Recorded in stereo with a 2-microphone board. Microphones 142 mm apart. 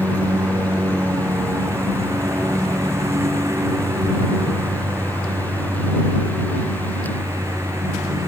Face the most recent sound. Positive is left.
turn(degrees=-20)  # may be behind; listen again after turning